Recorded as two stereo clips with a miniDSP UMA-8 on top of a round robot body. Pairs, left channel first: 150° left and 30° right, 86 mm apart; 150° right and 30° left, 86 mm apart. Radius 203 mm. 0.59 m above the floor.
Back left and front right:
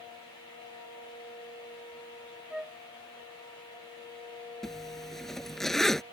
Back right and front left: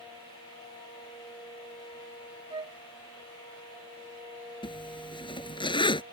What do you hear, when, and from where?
2.5 s a flute: 50° left
4.6 s a zipper: 125° right